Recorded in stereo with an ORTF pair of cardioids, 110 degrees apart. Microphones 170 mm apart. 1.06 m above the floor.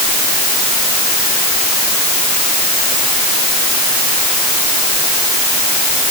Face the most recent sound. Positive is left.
No sound to turn to.